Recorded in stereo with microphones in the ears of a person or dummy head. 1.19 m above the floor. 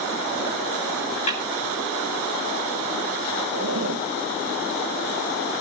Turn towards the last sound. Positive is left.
turn(degrees=-75)  # may be behind; listen again after turning